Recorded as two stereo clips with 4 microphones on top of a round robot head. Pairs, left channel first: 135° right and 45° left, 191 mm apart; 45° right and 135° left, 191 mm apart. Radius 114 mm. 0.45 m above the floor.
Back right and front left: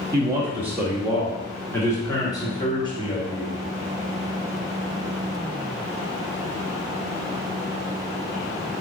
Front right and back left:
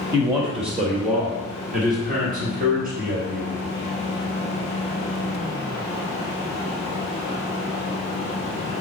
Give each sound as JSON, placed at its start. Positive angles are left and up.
{"t": 0.1, "sound": "a man speaking", "azimuth_deg": 95, "distance_m": 1.5}